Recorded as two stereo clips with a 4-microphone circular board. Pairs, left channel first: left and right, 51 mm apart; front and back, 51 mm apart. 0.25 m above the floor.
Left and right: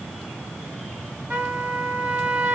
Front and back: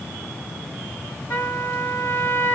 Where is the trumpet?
30° right, 1.5 m.